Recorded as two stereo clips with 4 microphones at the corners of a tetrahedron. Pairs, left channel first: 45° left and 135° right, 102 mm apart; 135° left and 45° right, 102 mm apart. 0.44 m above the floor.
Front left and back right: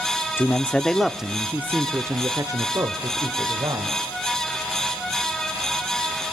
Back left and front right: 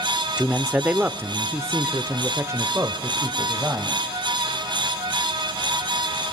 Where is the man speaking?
20° left, 0.8 m; by 4.0 s 100° right, 1.8 m.